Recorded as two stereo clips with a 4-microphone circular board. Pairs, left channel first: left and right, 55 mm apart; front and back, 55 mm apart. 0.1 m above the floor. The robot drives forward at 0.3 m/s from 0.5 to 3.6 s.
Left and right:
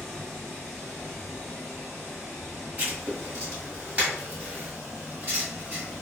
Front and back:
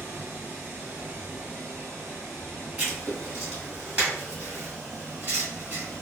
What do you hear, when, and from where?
0.0 s running water: 150° left, 1.7 m; by 6.0 s 165° left, 2.5 m
2.8 s writing: 135° right, 1.3 m; by 6.0 s 145° right, 1.5 m